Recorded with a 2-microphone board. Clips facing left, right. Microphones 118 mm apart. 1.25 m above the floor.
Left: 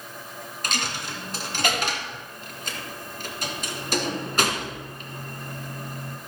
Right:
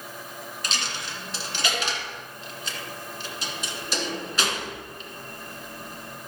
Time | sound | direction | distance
0.6 | a dropped coin | 50° left (ahead or behind) | 1.7 m